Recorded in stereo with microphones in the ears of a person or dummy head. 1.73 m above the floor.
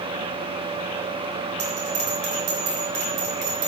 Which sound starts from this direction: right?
A bell, at 1.6 s.